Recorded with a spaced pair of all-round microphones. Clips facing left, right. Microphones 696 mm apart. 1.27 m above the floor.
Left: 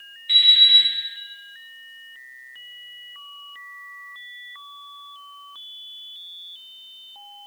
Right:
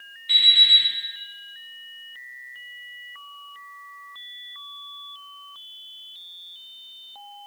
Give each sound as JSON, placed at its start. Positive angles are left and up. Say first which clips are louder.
{"t": 0.3, "sound": "an alarm clock", "louder": "left 1 dB", "side_deg": -70, "distance_m": 1.9}